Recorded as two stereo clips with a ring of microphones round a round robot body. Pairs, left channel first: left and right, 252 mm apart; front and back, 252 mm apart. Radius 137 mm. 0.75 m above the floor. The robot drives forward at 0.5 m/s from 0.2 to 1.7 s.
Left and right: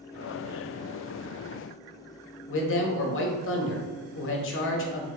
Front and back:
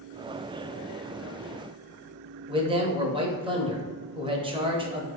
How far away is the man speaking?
About 0.7 m.